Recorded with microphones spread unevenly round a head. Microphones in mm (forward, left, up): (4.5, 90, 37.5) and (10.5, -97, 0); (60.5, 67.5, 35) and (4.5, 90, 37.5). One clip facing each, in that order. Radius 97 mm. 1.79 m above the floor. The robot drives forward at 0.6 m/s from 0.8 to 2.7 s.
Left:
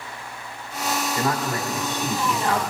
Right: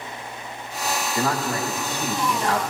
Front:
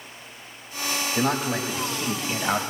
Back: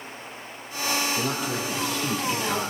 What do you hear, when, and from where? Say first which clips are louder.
1.1 s a man speaking: right 3 dB, front 3 dB; 25° right, 2.5 m; by 2.6 s 35° right, 1.9 m